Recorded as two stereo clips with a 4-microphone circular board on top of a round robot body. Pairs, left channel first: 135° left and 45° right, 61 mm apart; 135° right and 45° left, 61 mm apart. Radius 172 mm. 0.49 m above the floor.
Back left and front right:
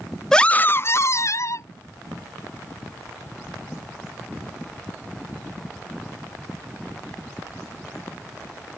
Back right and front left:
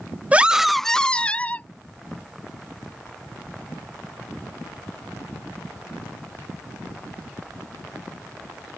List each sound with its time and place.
0.3 s a scream: 65° left; by 1.7 s 160° left